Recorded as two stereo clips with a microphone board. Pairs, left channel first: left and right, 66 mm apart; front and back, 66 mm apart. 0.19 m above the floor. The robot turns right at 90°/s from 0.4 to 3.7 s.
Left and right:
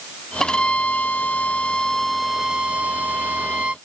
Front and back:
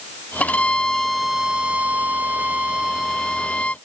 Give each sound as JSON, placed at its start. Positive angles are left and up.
{"t": 0.4, "sound": "a violin", "azimuth_deg": 20}